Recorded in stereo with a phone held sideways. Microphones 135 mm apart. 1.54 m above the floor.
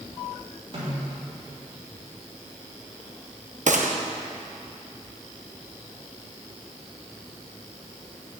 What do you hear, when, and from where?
0.7 s a snare drum: 45° right (ahead or behind), 4 m
3.7 s a gunshot: 65° right (ahead or behind), 0.9 m